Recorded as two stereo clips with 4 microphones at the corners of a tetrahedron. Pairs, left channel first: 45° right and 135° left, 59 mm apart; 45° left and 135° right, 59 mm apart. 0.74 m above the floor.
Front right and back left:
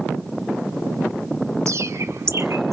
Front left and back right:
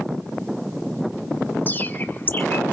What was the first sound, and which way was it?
A bird, 100° left.